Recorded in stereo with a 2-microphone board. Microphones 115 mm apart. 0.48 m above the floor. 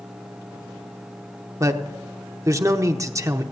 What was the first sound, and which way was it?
A man speaking, 25° right (ahead or behind).